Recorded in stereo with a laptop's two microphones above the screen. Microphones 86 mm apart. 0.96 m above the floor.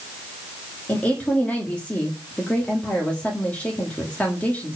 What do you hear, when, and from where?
0.9 s a woman speaking: 15° left (ahead or behind), 1.6 m